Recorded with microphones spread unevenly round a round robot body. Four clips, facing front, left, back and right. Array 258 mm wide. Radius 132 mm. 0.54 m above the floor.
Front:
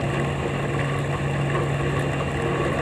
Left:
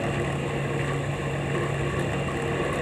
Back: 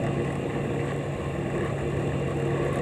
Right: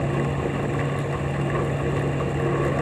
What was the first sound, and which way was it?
Only background noise.